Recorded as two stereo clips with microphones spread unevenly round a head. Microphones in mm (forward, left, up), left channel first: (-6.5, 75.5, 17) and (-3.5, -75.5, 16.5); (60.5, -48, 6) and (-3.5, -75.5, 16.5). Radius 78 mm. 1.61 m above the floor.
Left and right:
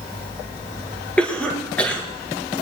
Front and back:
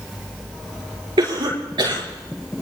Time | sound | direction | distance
1.2 | a cough | 175° left | 4.5 m